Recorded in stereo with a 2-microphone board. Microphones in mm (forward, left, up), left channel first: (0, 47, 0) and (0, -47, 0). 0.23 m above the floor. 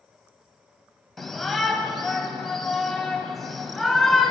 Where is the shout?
5° left (ahead or behind), 1.0 m.